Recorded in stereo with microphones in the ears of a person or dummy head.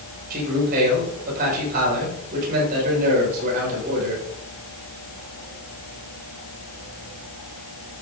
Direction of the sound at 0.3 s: 55° right (ahead or behind).